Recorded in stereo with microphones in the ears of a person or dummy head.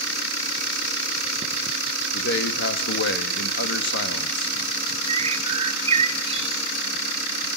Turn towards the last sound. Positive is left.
turn(degrees=-35)  # may be behind; listen again after turning